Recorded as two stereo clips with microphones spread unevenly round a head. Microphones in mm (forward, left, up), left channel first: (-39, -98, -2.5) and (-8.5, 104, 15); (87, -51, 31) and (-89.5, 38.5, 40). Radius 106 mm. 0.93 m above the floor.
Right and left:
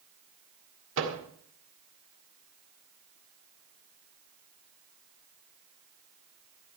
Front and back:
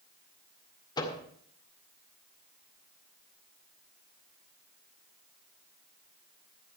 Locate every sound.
1.0 s a microwave: 45° left, 2 m